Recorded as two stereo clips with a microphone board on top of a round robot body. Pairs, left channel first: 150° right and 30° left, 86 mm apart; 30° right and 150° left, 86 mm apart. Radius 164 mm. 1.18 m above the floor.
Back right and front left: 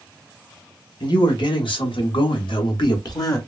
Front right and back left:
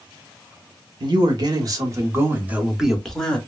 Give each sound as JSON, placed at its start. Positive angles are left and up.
{"t": 1.0, "sound": "a man speaking", "azimuth_deg": 180, "distance_m": 1.4}